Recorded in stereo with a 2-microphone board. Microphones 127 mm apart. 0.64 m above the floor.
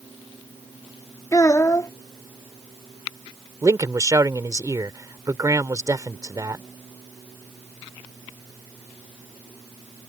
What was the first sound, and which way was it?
A child speaking, 25° left (ahead or behind).